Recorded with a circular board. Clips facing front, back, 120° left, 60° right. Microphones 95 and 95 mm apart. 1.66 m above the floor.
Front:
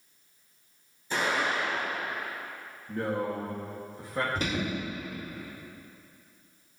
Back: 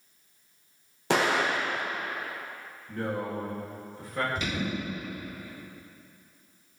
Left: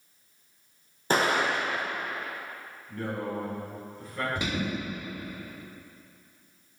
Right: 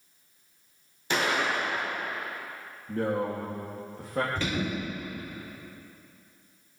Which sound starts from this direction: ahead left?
An alarm, at 4.3 s.